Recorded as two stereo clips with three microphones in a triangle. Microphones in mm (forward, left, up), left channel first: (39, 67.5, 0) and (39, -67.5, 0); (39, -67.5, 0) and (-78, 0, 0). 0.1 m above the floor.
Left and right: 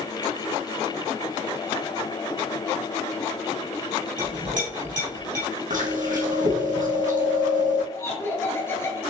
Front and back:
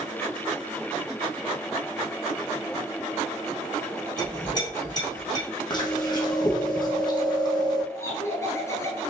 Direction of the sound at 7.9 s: 30° left.